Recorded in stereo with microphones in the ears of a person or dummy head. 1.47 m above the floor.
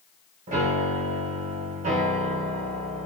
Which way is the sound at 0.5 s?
40° right (ahead or behind).